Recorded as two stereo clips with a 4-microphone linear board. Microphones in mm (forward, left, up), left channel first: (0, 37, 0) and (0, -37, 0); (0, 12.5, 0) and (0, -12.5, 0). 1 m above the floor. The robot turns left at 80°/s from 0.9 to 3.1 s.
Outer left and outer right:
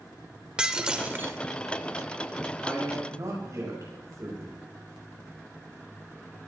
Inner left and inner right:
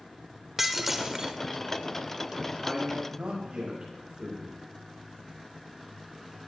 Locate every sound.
0.6 s breaking glass: 15° right, 1.0 m; by 1.4 s 50° right, 1.0 m
2.6 s a man speaking: 10° right, 6.5 m; by 4.6 s 45° right, 6.5 m